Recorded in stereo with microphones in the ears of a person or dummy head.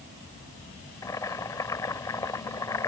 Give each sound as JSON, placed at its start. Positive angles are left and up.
{"t": 1.0, "sound": "boiling", "side_deg": 20}